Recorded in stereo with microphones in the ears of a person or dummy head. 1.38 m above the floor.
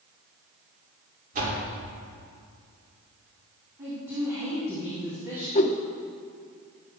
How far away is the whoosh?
About 0.5 m.